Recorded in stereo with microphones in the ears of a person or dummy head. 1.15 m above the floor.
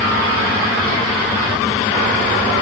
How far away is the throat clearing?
No throat clearing in this recording.